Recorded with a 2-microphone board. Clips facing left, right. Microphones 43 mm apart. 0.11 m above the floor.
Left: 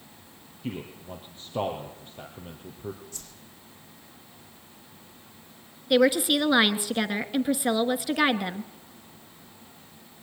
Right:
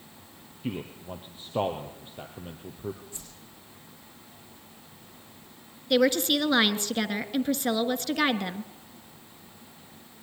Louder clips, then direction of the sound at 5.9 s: Left 2 dB; 10° left (ahead or behind).